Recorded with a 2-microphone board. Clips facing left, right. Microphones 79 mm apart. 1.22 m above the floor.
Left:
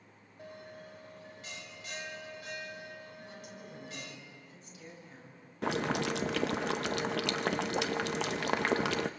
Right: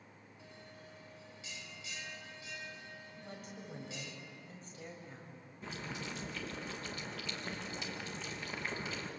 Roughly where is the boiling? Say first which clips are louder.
Left 13 dB; left.